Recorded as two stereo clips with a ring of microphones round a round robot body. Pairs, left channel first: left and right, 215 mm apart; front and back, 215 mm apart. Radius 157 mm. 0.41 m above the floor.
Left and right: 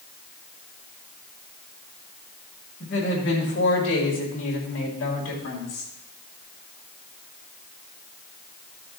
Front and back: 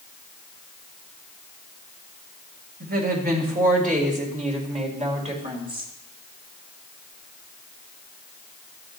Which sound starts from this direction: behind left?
A woman speaking, at 2.8 s.